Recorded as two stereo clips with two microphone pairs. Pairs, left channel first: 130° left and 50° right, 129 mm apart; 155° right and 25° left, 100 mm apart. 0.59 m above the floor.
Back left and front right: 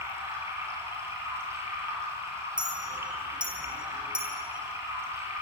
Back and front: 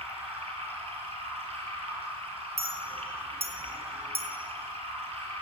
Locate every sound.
0.0 s running water: 20° left, 6.5 m
2.6 s a clink: 35° left, 5.5 m